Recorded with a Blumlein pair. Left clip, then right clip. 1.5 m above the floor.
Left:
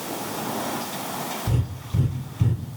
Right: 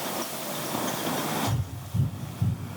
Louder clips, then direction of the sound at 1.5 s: Left 3 dB; 30° left.